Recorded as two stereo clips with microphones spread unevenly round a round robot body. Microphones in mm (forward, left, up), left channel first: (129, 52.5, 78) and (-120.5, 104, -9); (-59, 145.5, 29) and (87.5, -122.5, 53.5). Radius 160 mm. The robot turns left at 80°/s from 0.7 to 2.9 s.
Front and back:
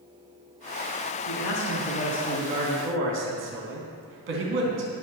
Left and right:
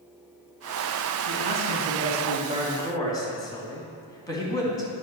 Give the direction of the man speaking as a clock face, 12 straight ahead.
1 o'clock.